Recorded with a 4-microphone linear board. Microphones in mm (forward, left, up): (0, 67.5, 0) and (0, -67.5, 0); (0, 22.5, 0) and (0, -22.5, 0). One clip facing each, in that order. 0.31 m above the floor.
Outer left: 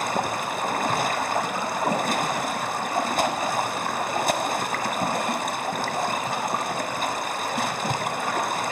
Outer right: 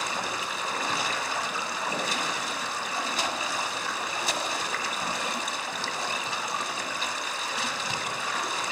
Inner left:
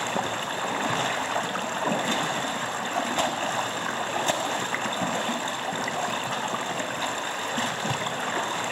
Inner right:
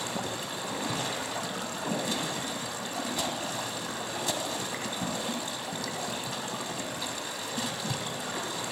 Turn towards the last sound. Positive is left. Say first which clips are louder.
# outer left 7 dB, inner left 6 dB
turn(degrees=50)  # may be behind; listen again after turning